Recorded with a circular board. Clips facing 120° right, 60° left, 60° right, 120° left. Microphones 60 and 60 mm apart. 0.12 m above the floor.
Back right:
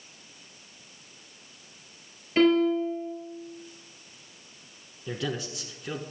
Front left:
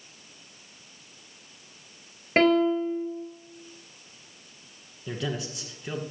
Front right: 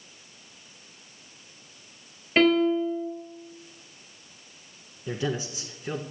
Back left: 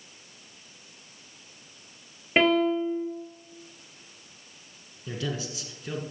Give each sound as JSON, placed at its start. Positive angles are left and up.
{"t": 2.4, "sound": "a piano", "azimuth_deg": 50, "distance_m": 2.5}
{"t": 5.1, "sound": "a man speaking", "azimuth_deg": -30, "distance_m": 1.1}